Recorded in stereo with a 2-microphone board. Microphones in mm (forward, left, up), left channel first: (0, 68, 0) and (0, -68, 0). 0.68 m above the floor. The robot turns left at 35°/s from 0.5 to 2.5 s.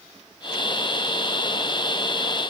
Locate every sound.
Only background noise.